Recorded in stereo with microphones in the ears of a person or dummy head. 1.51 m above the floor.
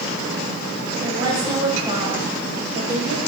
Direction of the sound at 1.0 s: 25° right (ahead or behind).